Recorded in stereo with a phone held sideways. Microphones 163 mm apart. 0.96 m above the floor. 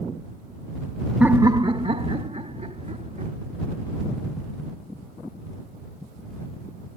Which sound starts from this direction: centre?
Laughter, at 1.2 s.